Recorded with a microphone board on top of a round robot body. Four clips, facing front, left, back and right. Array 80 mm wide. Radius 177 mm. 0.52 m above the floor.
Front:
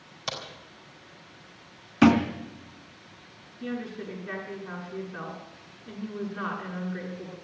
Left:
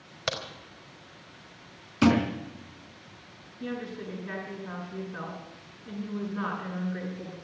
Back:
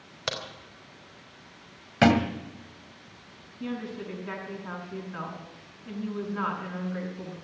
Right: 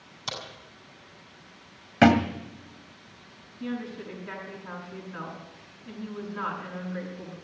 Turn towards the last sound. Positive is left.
turn(degrees=-160)